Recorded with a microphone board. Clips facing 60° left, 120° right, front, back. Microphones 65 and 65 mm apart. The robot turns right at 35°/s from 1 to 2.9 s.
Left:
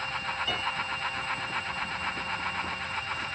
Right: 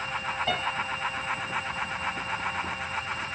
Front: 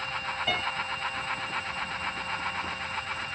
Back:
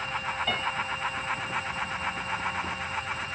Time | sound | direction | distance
0.5 | a piano | 85° right | 2.5 m